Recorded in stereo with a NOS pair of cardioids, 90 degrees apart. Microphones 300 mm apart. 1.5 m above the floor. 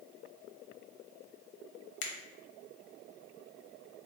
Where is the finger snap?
70° left, 0.8 m.